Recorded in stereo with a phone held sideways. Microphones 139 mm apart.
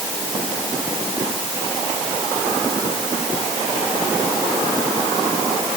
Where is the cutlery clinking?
No cutlery clinking in this recording.